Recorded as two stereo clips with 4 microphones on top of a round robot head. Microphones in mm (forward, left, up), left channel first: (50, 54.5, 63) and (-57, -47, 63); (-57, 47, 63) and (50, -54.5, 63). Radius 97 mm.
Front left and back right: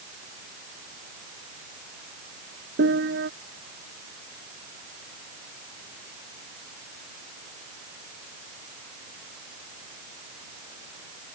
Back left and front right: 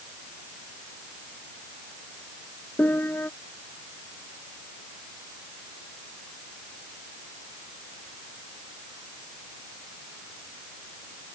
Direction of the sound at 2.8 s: 145° right.